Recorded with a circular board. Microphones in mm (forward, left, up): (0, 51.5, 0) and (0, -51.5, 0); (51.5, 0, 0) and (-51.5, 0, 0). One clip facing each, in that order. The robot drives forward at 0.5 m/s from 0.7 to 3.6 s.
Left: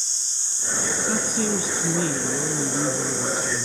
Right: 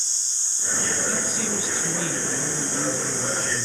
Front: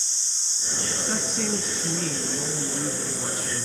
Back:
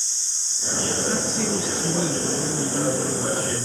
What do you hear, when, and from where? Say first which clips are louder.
1.1 s a woman speaking: left 4 dB, back 1 dB; 85° left, 1.7 m; by 3.6 s 140° left, 2 m